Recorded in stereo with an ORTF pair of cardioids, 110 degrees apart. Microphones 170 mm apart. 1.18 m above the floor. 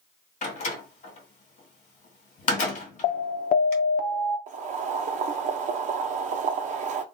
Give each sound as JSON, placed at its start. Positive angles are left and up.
{"t": 0.4, "sound": "a door slam", "azimuth_deg": 45, "distance_m": 1.9}
{"t": 3.0, "sound": "an alarm", "azimuth_deg": 55, "distance_m": 0.9}
{"t": 4.5, "sound": "boiling", "azimuth_deg": -45, "distance_m": 0.9}